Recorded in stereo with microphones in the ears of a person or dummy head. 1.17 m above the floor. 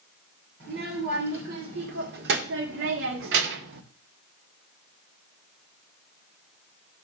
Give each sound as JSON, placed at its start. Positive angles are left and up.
{"t": 0.6, "sound": "a child speaking", "side_deg": -70, "distance_m": 2.5}